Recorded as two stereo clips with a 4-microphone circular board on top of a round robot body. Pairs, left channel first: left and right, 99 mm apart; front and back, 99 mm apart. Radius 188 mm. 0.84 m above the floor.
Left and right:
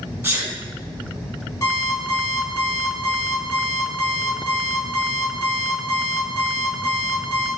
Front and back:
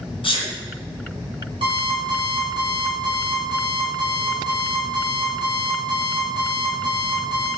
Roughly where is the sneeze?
Ahead right.